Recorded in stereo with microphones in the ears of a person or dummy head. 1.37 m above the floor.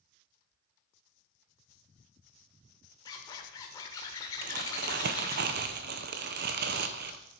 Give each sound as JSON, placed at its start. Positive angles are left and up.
{"t": 3.0, "sound": "a zipper", "side_deg": 20, "distance_m": 1.4}
{"t": 4.4, "sound": "crumpling", "side_deg": -55, "distance_m": 0.8}